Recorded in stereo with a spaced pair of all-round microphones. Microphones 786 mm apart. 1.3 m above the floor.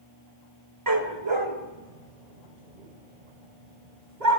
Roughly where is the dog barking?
Right.